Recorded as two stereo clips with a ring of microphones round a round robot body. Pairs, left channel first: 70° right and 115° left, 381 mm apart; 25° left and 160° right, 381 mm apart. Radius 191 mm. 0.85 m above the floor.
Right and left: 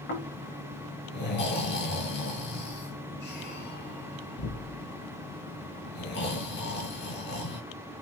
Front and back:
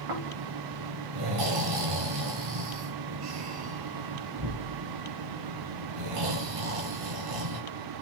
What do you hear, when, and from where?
0.1 s snoring: 130° right, 4.5 m